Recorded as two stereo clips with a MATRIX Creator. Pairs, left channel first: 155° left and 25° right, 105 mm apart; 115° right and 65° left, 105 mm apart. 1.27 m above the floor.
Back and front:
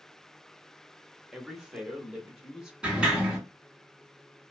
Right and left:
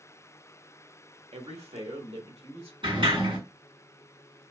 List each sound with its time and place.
1.3 s a man speaking: 60° left, 0.8 m
2.8 s a sliding door: 55° left, 1.9 m